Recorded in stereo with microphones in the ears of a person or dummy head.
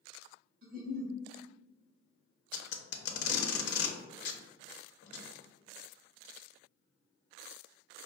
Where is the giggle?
50° right (ahead or behind), 0.7 m.